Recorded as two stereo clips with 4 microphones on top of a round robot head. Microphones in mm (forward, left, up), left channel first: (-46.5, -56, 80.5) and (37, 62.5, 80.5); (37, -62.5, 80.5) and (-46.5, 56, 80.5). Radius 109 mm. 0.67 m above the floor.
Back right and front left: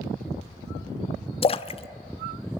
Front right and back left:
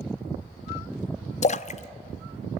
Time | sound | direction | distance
1.4 | a splash | 85° right | 0.8 m